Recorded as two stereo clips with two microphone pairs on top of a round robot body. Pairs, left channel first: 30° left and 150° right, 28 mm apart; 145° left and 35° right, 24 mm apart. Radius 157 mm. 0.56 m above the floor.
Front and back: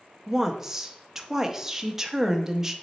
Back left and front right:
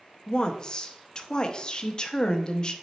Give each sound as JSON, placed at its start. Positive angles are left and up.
{"t": 0.3, "sound": "a woman speaking", "azimuth_deg": 155, "distance_m": 0.7}